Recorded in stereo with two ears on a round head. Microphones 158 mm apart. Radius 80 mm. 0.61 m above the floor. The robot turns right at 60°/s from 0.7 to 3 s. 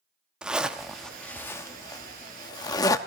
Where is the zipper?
5° right (ahead or behind), 0.9 m; by 3.0 s 20° left (ahead or behind), 0.9 m.